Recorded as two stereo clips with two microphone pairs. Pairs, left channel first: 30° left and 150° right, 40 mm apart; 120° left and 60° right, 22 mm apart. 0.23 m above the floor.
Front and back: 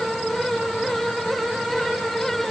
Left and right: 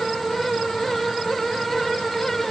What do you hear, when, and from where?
Only background noise.